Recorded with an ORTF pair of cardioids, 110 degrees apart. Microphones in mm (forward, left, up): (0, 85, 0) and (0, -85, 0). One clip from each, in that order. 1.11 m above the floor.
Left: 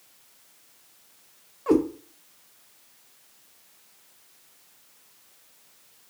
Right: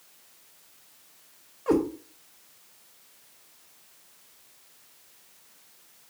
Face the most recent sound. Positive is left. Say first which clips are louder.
# left 2 dB
turn(degrees=15)